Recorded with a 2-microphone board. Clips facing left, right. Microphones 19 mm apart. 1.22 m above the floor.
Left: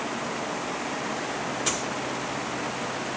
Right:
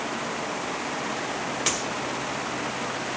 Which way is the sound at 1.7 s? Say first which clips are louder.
Right 2 dB; 55° right (ahead or behind).